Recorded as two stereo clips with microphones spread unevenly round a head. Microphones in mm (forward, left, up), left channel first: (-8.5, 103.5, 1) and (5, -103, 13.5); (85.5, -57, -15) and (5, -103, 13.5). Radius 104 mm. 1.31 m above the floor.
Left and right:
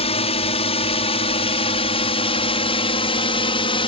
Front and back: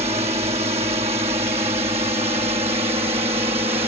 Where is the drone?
155° left.